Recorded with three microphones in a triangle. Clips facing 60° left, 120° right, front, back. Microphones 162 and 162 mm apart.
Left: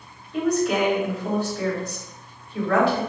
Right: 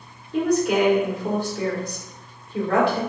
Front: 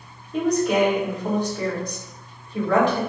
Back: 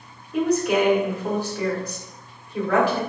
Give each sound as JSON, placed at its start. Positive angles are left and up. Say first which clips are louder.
{"t": 0.3, "sound": "a woman speaking", "louder": "right 2 dB, even", "azimuth_deg": -100, "distance_m": 2.0}